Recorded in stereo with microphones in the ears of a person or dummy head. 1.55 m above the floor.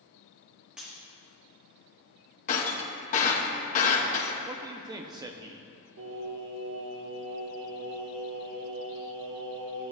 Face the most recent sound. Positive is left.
turn(degrees=-80)